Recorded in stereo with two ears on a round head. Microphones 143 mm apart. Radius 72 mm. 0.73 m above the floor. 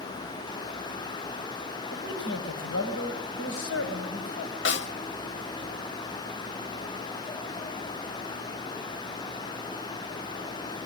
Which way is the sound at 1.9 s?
75° left (ahead or behind).